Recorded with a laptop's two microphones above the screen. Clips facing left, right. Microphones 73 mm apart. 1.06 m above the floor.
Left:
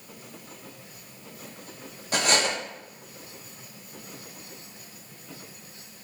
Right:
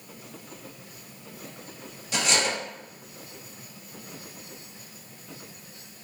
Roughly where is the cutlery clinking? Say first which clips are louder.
Left 2 dB; left.